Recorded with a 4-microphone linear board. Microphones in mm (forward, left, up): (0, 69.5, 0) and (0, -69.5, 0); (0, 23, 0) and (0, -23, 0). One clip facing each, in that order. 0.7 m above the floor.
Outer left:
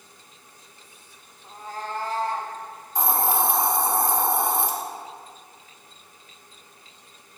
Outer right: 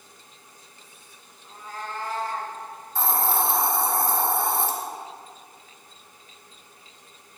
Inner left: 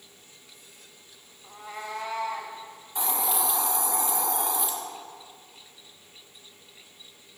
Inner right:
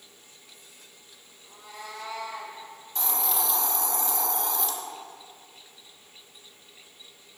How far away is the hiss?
About 0.7 m.